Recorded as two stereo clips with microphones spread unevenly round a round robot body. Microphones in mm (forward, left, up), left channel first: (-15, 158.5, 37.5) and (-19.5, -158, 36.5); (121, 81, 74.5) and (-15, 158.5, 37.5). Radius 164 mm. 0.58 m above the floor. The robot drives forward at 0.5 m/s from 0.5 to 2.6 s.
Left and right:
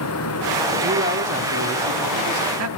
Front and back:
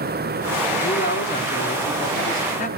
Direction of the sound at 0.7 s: 40° right.